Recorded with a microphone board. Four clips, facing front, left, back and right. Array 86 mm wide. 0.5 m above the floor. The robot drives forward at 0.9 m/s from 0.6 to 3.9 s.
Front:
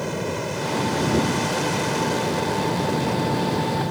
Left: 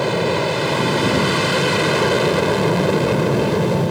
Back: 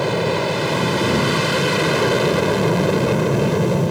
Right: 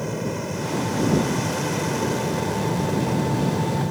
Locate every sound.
0.0 s an aircraft: 125° left; by 3.9 s 130° left